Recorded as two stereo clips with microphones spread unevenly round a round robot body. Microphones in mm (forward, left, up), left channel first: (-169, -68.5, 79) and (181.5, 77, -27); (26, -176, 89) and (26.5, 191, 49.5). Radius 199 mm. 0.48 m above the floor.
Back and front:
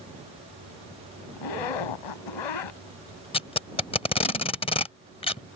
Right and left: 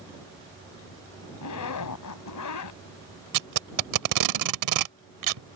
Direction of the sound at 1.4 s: 135° right.